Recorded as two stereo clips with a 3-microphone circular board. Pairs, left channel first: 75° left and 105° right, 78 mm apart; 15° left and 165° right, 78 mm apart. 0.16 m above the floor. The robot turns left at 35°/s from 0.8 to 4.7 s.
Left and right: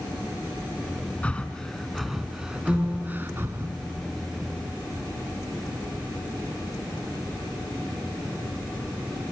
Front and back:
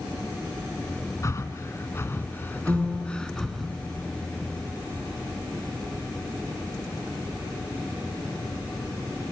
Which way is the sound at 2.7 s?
150° left.